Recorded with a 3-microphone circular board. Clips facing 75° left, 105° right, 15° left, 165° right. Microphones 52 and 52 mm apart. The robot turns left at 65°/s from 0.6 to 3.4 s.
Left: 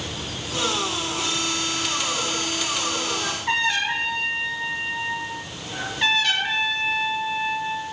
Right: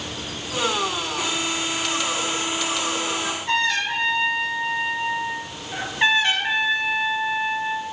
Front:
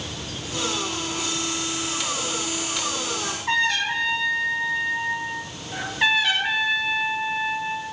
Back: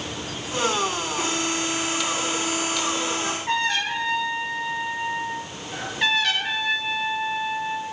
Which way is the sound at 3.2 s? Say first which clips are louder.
Even, front 5 dB; 155° left.